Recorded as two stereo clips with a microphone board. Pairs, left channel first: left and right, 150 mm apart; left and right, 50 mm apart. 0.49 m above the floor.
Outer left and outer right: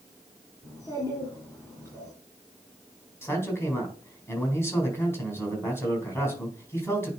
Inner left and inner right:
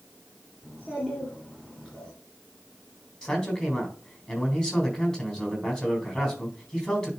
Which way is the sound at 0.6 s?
20° left (ahead or behind).